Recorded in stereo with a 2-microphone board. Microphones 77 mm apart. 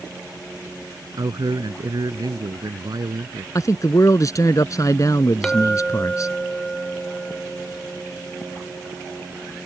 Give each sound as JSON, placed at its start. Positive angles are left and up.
{"t": 1.2, "sound": "a man speaking", "side_deg": -65}
{"t": 3.5, "sound": "a man speaking", "side_deg": 45}
{"t": 5.4, "sound": "a clink", "side_deg": 10}